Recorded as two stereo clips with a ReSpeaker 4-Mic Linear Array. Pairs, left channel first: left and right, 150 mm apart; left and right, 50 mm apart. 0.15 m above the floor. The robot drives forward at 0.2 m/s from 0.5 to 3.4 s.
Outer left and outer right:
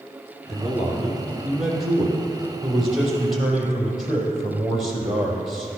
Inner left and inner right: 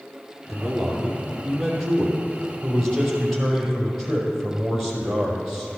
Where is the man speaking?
Centre (ahead or behind), 4 m.